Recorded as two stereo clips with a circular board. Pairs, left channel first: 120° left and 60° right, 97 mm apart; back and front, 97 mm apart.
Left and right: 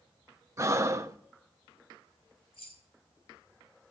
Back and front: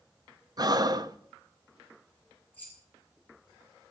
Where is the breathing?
15° right, 0.5 m.